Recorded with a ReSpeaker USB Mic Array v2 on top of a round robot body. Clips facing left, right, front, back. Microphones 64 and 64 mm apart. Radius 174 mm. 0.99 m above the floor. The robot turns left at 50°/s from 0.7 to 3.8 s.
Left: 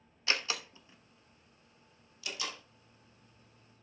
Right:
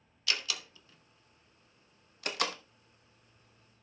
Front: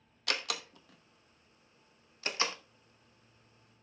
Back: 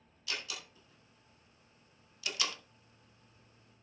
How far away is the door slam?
About 1.0 m.